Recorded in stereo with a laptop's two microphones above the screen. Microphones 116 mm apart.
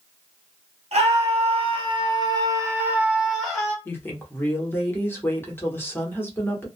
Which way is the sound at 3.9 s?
20° left (ahead or behind).